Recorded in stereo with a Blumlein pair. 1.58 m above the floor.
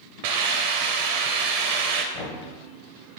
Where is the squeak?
No squeak in this recording.